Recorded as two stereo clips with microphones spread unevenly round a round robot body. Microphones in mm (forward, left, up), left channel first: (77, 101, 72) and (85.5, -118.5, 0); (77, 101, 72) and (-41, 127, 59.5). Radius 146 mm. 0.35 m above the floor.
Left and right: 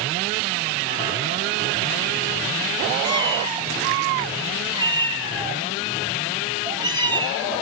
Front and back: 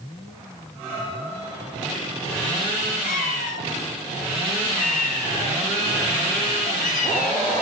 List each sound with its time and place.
3.0 s a cat meowing: 15° right, 5 m